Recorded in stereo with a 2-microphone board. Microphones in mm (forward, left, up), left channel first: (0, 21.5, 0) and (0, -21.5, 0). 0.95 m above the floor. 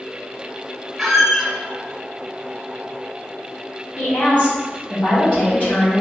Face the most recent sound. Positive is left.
turn(degrees=40)  # may be behind; listen again after turning